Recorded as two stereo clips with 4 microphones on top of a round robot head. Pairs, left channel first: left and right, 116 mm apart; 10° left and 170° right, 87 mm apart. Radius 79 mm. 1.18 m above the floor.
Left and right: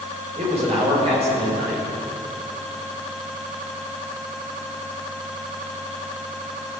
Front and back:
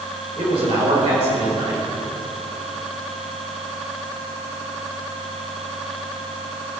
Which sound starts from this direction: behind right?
A man speaking, at 0.4 s.